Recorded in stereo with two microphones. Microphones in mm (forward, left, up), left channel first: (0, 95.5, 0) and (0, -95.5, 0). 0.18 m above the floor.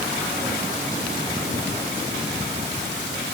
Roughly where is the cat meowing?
I don't hear a cat meowing.